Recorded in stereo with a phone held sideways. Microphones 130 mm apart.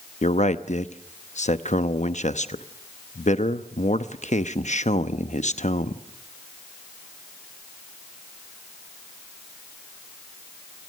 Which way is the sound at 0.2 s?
60° left (ahead or behind).